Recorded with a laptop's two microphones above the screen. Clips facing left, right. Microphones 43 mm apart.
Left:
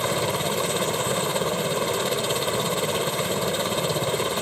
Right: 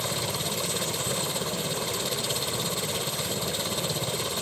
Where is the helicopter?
40° left (ahead or behind).